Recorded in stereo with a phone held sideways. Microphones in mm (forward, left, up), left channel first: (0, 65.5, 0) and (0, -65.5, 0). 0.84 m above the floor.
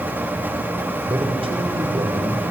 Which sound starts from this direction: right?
A man speaking, at 1.1 s.